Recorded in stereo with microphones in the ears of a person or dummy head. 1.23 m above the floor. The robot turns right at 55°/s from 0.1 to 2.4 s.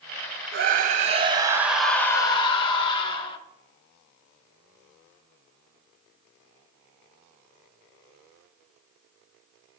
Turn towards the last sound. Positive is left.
turn(degrees=30)